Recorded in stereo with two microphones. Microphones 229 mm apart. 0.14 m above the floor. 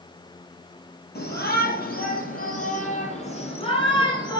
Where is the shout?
50° left (ahead or behind), 4.5 m; by 4.4 s 20° left (ahead or behind), 4.5 m.